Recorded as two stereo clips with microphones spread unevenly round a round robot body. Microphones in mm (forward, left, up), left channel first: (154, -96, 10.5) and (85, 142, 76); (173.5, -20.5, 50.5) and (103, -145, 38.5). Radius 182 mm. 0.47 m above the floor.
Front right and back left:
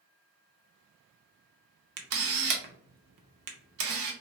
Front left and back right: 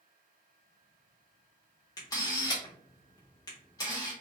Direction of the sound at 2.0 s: 125° left.